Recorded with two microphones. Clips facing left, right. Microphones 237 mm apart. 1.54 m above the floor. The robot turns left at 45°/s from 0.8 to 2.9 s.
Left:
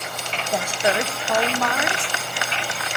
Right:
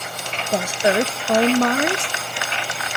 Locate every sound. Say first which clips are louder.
0.5 s a woman speaking: right 4 dB; 40° right, 0.5 m; by 2.1 s 100° right, 0.5 m